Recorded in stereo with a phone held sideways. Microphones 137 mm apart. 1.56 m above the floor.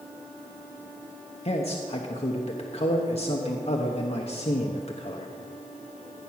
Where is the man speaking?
50° left (ahead or behind), 1.0 m.